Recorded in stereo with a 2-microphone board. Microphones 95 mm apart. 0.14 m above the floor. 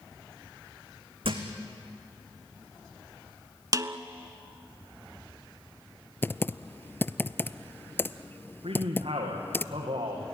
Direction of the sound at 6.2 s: 25° left (ahead or behind).